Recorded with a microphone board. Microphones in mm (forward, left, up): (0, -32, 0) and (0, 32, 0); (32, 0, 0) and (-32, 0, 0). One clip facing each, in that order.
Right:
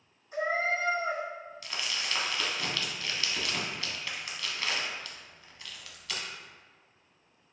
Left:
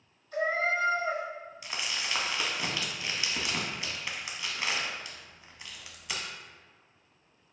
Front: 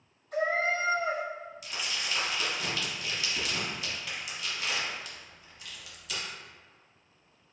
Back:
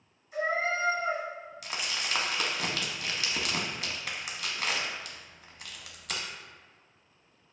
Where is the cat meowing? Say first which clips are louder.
Left 1 dB, front 1 dB; 20° right, 1.5 m.